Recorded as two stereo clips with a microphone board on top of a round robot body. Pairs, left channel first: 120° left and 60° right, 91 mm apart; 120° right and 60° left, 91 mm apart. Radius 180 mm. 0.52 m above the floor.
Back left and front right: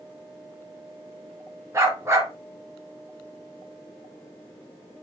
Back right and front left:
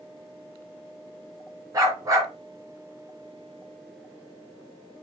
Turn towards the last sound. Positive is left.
turn(degrees=5)